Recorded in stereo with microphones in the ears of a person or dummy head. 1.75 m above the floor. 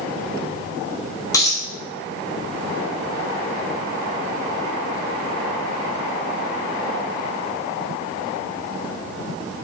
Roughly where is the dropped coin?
Left.